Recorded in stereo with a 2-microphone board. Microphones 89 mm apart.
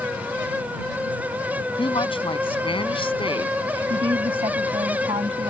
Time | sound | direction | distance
1.8 | a woman speaking | 75° left (ahead or behind) | ?
3.9 | a woman speaking | 80° right | ?